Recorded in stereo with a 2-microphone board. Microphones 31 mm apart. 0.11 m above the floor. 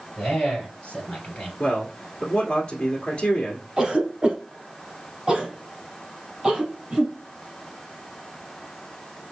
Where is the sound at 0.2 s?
35° left (ahead or behind), 2.5 m.